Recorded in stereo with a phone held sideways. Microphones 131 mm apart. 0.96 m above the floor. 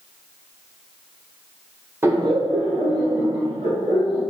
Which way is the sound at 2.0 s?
20° right (ahead or behind).